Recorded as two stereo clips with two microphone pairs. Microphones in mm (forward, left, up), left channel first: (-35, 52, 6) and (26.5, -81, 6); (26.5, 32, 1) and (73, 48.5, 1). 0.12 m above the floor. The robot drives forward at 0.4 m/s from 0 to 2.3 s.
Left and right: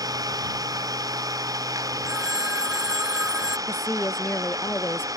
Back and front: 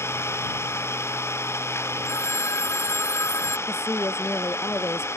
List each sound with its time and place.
0.0 s an engine running: 130° right
2.0 s a phone ringing: 150° right
3.7 s a woman speaking: 170° right